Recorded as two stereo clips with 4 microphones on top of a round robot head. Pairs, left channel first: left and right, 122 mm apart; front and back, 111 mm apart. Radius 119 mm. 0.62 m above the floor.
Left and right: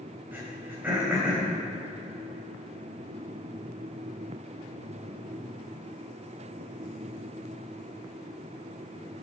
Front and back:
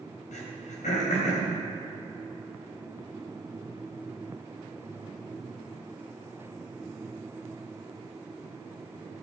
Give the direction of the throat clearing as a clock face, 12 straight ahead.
12 o'clock.